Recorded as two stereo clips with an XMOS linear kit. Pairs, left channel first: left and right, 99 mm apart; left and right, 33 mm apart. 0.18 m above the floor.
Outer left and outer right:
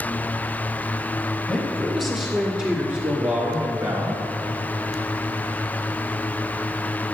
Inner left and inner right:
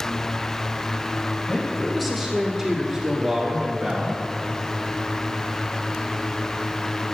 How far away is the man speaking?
About 2.5 m.